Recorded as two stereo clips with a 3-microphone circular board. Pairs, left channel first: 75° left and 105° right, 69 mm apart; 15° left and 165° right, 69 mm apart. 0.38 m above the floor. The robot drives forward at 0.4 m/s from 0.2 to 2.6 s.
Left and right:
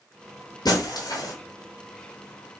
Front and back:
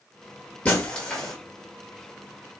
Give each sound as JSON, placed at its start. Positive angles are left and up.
{"t": 0.7, "sound": "breaking glass", "azimuth_deg": 85, "distance_m": 1.4}